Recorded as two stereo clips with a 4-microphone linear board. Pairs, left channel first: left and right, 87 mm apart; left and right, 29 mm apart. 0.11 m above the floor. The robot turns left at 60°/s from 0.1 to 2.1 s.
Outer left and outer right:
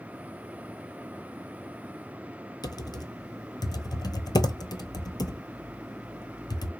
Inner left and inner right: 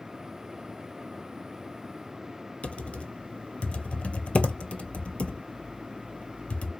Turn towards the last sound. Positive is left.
turn(degrees=50)  # may be behind; listen again after turning